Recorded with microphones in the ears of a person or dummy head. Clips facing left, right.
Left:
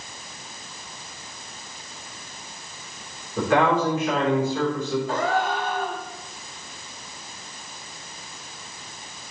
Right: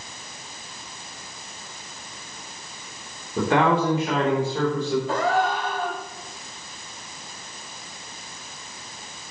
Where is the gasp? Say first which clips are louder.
Right 1 dB; 70° right (ahead or behind), 3.5 m.